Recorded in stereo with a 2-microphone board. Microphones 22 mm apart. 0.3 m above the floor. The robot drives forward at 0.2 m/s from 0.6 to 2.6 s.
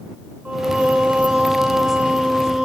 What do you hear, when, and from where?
0.5 s singing: 75° right (ahead or behind), 0.8 m; by 2.7 s 50° right (ahead or behind), 0.9 m